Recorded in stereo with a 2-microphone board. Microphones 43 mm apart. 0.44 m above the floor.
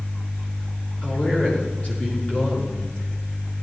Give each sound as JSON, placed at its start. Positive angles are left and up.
{"t": 1.0, "sound": "a man speaking", "side_deg": 30, "distance_m": 6.5}